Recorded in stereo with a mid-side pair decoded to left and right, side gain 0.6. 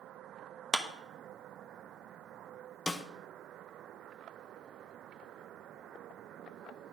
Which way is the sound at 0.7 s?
Straight ahead.